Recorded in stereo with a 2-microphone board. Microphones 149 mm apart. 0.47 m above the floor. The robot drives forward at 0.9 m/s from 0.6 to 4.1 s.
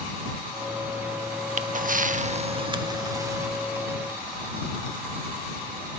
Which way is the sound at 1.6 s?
50° right (ahead or behind).